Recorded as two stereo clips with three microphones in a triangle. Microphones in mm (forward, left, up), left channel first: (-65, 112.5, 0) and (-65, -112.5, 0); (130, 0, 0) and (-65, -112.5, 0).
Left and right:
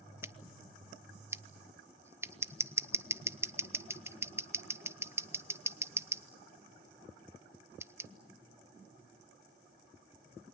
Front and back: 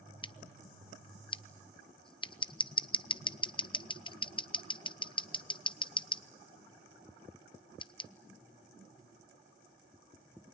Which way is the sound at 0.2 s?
20° right.